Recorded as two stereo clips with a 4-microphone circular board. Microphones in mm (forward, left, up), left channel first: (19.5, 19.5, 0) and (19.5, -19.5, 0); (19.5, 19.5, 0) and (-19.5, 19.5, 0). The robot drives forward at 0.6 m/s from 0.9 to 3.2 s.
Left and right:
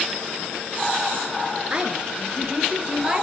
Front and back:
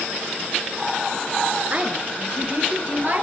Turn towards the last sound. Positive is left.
turn(degrees=-160)